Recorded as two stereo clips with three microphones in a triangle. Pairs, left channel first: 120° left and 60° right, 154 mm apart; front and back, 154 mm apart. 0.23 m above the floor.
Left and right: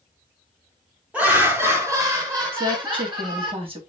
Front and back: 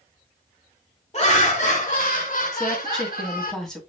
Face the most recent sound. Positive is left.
turn(degrees=-85)